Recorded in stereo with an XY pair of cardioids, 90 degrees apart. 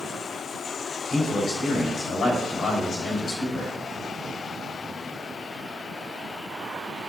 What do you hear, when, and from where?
1.1 s a man speaking: 60° left, 4.5 m